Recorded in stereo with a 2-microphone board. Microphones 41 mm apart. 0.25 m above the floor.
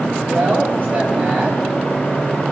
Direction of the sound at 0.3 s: 55° right (ahead or behind).